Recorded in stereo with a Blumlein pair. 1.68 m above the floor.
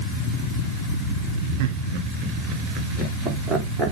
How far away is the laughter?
About 3 m.